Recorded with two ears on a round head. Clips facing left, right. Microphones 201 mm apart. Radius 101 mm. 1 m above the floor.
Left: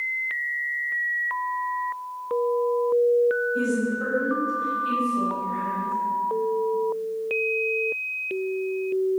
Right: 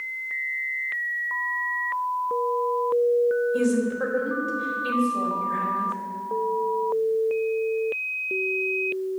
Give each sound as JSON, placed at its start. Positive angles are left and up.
{"t": 3.5, "sound": "a woman speaking", "side_deg": -80, "distance_m": 4.0}